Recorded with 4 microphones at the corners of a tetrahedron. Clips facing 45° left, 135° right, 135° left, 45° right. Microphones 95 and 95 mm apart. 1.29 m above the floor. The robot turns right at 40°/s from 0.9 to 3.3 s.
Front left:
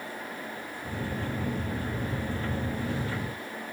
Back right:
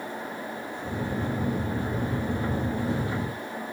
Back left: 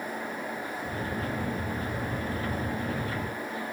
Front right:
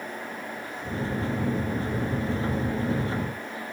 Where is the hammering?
I don't hear hammering.